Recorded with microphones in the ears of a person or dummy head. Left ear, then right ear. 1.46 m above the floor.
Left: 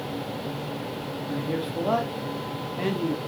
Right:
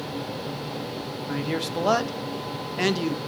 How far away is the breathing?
No breathing in this recording.